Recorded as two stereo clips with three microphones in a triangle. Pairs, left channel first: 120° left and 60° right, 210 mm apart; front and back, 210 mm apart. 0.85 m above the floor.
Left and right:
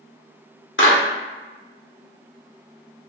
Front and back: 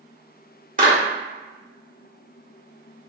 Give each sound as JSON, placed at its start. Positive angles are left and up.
{"t": 0.8, "sound": "a clap", "azimuth_deg": 135, "distance_m": 1.5}